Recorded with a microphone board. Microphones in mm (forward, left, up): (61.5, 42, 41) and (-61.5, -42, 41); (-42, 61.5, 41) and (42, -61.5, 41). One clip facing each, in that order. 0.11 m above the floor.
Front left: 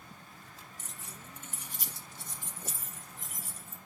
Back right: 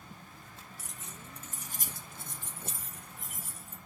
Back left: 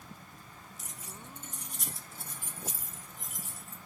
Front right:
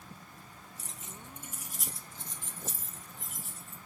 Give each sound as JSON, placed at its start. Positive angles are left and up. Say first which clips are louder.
{"t": 0.8, "sound": "keys jangling", "louder": "back right 1 dB, even", "azimuth_deg": -70, "distance_m": 1.2}